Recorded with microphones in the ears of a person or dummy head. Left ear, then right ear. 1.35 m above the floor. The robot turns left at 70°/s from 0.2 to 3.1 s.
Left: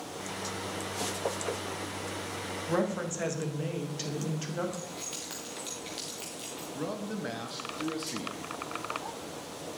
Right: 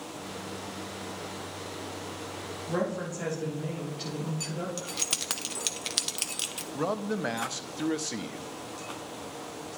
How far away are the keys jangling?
About 0.7 m.